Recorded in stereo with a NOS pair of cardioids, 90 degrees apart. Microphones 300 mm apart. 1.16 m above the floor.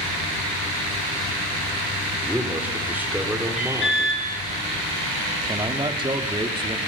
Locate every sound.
2.2 s a man speaking: 5° right, 4 m
3.6 s an alarm: 40° left, 4 m
5.5 s a man speaking: 15° right, 2.5 m